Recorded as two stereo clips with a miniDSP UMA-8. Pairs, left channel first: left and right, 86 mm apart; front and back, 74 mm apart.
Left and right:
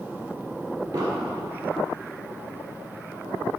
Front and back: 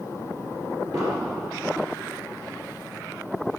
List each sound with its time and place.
0.9 s an explosion: 140° right, 1.3 m